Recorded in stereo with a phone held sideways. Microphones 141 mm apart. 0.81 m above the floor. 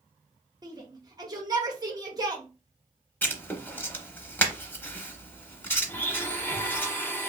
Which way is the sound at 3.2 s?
15° left (ahead or behind).